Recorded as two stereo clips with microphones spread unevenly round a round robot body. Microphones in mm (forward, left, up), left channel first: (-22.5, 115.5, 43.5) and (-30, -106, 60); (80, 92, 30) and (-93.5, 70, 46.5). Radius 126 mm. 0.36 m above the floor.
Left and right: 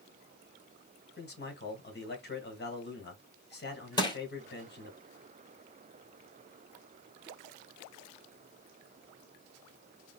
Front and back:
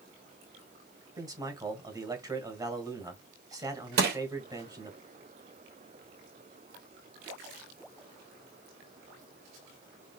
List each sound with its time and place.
1.2 s a man speaking: 115° left, 2 m
4.0 s crushing: 160° left, 2.5 m